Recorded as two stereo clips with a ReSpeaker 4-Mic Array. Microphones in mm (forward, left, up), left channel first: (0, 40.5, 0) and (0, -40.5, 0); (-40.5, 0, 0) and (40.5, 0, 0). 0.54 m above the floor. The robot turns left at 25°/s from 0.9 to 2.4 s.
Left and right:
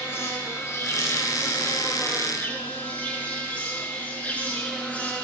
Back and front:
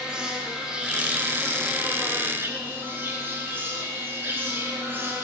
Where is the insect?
70° left, 0.7 m; by 5.2 s 35° left, 0.7 m.